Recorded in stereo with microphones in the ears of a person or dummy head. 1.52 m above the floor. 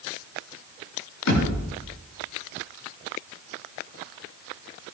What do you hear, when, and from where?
1.3 s a thud: 85° left, 8 m